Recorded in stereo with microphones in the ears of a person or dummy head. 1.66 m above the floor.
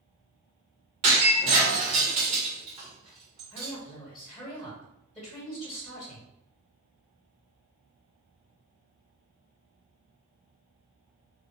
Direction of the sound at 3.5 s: 5° left (ahead or behind).